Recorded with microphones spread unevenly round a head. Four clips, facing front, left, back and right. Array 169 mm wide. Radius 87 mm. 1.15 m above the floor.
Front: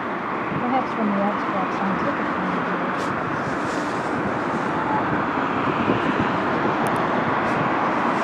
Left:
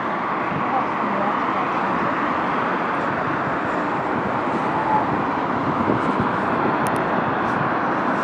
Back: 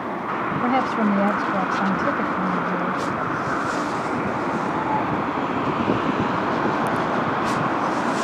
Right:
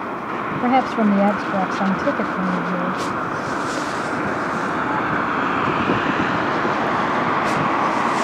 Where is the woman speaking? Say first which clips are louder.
Right 8 dB, back 2 dB; 125° right.